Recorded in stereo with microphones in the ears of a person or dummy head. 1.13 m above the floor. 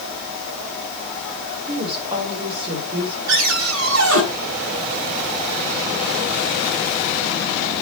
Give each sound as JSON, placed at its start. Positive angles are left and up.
{"t": 1.7, "sound": "a woman speaking", "side_deg": -25, "distance_m": 4.0}
{"t": 3.3, "sound": "a cupboard door", "side_deg": -75, "distance_m": 3.5}